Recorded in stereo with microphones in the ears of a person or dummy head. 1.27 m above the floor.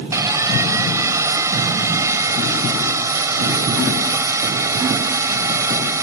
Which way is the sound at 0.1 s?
20° right (ahead or behind).